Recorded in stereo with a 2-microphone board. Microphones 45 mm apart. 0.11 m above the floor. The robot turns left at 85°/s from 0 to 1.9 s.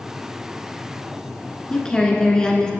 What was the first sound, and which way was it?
A woman speaking, 20° left (ahead or behind).